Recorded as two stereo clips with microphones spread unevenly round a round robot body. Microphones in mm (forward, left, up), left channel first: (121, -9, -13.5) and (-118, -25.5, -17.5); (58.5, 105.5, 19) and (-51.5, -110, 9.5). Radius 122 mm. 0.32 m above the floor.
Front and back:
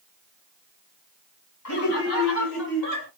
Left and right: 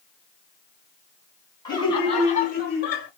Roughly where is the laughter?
Ahead.